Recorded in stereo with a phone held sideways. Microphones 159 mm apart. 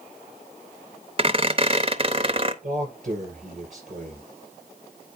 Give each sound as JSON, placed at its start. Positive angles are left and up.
{"t": 1.2, "sound": "a squeak", "side_deg": -35, "distance_m": 0.7}
{"t": 2.6, "sound": "a man speaking", "side_deg": -50, "distance_m": 5.5}